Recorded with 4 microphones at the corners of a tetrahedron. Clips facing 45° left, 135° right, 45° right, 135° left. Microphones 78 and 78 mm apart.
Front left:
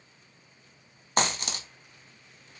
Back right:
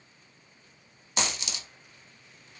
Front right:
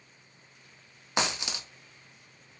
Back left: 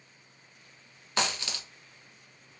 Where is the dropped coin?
20° left, 0.6 m.